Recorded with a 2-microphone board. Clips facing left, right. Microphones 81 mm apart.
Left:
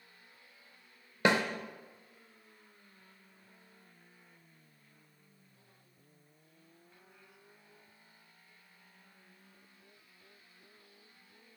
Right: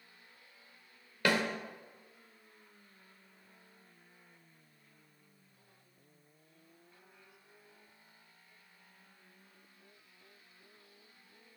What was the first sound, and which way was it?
A snare drum, 25° left (ahead or behind).